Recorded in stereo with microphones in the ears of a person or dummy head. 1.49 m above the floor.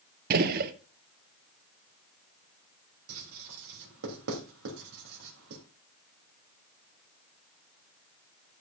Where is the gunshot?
50° right (ahead or behind), 1.0 m.